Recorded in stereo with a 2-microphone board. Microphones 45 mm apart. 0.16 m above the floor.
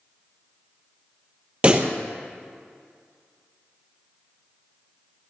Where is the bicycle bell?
No bicycle bell in this recording.